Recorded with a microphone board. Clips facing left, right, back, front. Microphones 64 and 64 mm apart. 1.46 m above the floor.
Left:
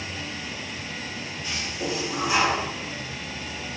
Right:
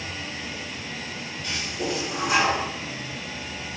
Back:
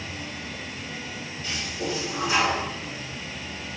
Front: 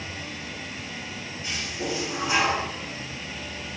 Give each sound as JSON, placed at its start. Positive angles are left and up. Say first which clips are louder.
{"t": 1.4, "sound": "a toilet flushing", "louder": "right 1 dB, even", "azimuth_deg": -65, "distance_m": 1.8}